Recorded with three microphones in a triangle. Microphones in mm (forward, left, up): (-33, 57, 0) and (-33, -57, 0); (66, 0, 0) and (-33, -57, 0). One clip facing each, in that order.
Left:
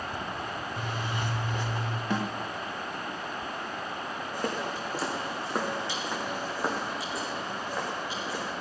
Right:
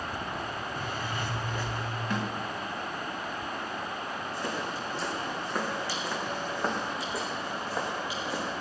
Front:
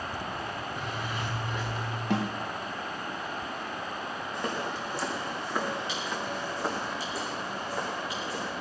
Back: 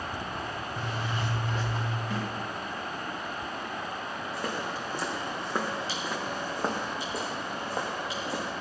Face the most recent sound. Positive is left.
turn(degrees=-160)